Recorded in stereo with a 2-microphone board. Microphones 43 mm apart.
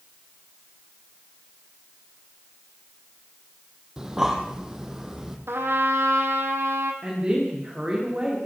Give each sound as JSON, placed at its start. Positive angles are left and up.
{"t": 4.0, "sound": "breathing", "side_deg": -15, "distance_m": 2.5}
{"t": 5.5, "sound": "a trumpet", "side_deg": -70, "distance_m": 2.5}
{"t": 7.0, "sound": "a woman speaking", "side_deg": -25, "distance_m": 7.5}